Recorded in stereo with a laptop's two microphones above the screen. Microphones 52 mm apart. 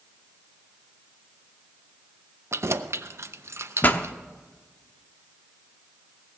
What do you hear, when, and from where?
2.5 s keys jangling: 60° right (ahead or behind), 0.6 m
3.8 s a pop: 35° left (ahead or behind), 0.7 m